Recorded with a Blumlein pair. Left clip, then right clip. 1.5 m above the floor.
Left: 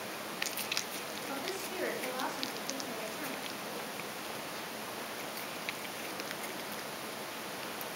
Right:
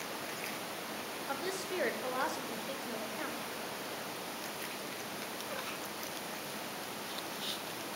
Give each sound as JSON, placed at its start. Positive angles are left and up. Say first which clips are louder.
{"t": 1.3, "sound": "a woman speaking", "louder": "right 3 dB", "azimuth_deg": -40, "distance_m": 2.0}